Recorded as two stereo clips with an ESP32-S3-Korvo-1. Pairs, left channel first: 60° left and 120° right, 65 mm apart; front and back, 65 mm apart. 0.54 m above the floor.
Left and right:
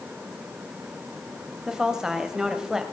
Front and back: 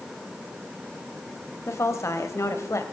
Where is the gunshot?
No gunshot in this recording.